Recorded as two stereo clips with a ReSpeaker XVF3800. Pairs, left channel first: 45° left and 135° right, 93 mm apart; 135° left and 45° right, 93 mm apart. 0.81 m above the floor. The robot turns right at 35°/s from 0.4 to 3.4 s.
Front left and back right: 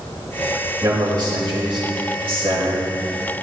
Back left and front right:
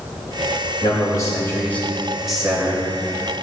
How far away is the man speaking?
About 4.5 m.